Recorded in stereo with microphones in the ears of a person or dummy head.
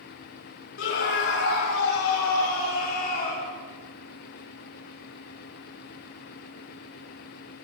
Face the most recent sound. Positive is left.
turn(degrees=50)  # may be behind; listen again after turning